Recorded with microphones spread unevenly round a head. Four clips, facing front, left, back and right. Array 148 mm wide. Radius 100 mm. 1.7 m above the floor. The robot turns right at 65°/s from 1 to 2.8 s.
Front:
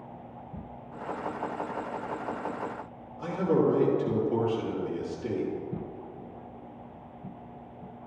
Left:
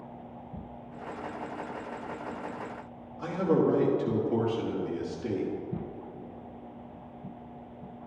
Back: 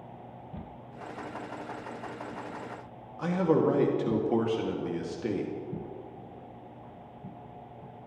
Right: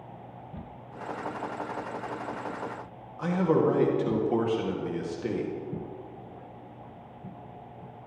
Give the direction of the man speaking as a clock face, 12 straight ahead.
6 o'clock.